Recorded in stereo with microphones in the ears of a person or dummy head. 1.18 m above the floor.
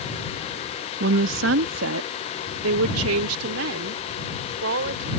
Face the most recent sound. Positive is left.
turn(degrees=-80)